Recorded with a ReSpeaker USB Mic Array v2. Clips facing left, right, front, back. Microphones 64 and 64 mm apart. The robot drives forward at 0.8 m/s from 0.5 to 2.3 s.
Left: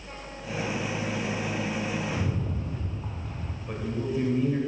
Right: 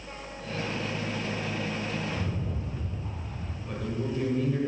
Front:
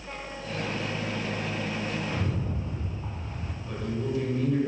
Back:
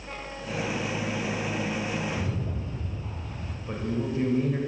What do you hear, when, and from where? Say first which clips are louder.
2.1 s a rattle: left 2 dB, even; 50° left, 1.3 m; by 3.6 s 55° left, 1.2 m
3.7 s a man speaking: left 2 dB, back 1 dB; 150° left, 1.1 m